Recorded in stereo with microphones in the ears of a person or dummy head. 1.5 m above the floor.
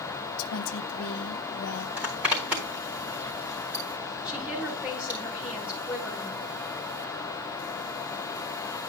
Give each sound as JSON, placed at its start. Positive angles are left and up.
{"t": 0.4, "sound": "a woman speaking", "side_deg": 75, "distance_m": 1.3}
{"t": 2.0, "sound": "a zipper", "side_deg": -10, "distance_m": 4.0}
{"t": 4.2, "sound": "a woman speaking", "side_deg": -10, "distance_m": 3.5}